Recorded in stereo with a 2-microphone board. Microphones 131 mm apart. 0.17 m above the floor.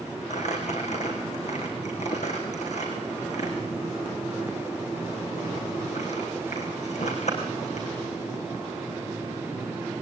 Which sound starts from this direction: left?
Crumpling, at 0.3 s.